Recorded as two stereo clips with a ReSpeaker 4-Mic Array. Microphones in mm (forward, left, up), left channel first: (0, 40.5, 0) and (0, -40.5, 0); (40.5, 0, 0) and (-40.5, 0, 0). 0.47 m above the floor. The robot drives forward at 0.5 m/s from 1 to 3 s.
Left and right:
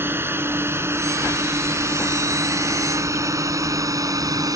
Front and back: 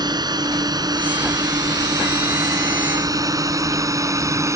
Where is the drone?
150° right; by 4.6 s 130° right.